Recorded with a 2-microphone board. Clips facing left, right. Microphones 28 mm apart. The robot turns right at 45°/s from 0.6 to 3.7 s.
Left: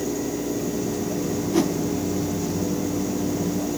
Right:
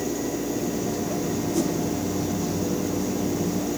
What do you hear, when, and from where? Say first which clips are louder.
1.5 s a whoosh: left 5 dB; 40° left (ahead or behind), 1.7 m; by 1.7 s 45° left (ahead or behind), 1.7 m